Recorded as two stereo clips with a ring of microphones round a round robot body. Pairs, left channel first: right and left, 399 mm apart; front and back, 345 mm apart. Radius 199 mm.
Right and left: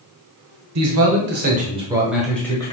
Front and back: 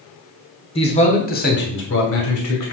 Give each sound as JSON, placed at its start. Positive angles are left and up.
{"t": 0.8, "sound": "a man speaking", "azimuth_deg": 65, "distance_m": 1.2}